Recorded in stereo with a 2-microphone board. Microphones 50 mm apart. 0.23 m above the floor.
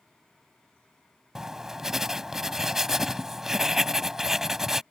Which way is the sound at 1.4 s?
10° right (ahead or behind).